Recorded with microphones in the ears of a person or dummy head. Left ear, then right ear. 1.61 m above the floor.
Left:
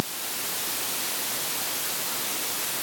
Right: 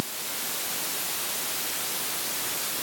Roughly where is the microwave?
I don't hear a microwave.